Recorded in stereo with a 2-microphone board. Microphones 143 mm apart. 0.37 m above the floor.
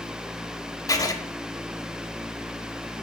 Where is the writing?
25° left (ahead or behind), 0.6 m.